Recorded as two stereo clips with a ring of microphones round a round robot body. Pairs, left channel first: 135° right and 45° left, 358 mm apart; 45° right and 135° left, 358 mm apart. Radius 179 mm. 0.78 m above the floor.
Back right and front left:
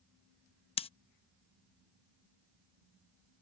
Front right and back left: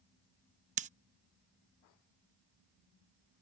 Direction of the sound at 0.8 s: 175° left.